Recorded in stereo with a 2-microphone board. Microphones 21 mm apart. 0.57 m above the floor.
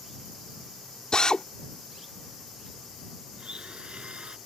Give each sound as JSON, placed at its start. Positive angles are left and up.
{"t": 1.1, "sound": "a drill", "side_deg": 45}
{"t": 3.4, "sound": "a blender", "side_deg": -60}